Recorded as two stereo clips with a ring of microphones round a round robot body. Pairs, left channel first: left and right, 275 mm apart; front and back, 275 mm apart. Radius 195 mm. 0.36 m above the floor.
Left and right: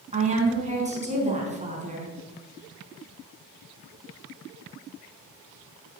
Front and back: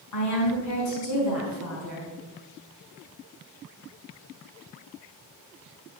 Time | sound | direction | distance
0.1 | a woman speaking | 25° right | 4.5 m